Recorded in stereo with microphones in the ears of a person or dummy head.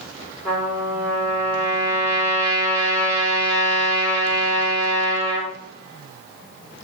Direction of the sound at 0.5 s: 10° left (ahead or behind).